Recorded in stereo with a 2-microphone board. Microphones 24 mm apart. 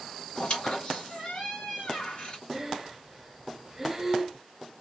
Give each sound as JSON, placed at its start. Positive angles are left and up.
{"t": 0.3, "sound": "a squeak", "side_deg": 50, "distance_m": 1.9}
{"t": 2.5, "sound": "breathing", "side_deg": -15, "distance_m": 0.7}